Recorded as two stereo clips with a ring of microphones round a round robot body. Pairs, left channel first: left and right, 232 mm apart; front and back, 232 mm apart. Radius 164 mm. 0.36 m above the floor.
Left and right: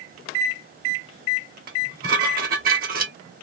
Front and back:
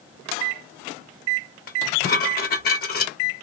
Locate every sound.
1.7 s dishes clattering: 45° right, 0.7 m